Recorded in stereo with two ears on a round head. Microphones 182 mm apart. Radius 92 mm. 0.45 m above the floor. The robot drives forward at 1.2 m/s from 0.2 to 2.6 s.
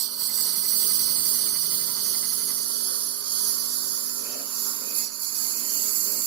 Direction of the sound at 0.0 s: 85° right.